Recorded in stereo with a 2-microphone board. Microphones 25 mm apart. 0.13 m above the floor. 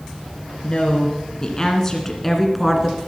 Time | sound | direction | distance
0.6 | a woman speaking | 40° left (ahead or behind) | 2 m